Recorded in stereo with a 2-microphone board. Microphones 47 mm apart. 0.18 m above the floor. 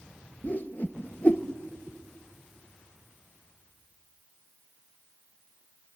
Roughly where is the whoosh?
Left.